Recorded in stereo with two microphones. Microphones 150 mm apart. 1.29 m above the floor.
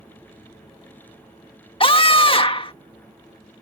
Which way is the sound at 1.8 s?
40° left (ahead or behind).